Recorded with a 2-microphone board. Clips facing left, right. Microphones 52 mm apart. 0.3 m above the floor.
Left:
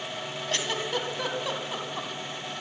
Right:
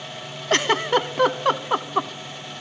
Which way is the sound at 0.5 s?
65° right (ahead or behind).